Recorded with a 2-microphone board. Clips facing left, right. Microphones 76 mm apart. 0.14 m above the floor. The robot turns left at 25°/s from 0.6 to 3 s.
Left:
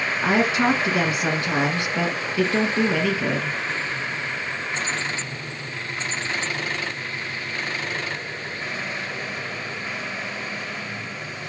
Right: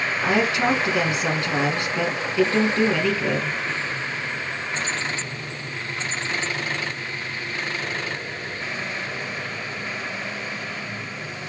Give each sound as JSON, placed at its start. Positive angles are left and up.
{"t": 0.2, "sound": "a woman speaking", "side_deg": 20, "distance_m": 1.2}